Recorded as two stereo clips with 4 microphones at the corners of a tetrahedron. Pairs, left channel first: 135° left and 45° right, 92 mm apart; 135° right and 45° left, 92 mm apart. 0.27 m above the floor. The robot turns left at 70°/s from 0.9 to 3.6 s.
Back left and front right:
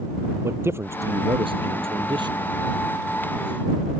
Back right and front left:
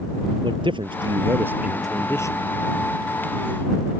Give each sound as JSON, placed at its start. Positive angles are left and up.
{"t": 0.4, "sound": "a man speaking", "azimuth_deg": 20}